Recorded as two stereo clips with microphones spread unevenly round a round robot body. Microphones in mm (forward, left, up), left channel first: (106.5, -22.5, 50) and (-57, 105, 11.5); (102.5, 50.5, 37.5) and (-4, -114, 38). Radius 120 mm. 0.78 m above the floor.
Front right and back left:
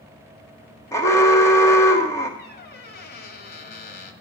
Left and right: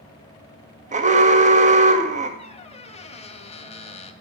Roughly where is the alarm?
Behind right.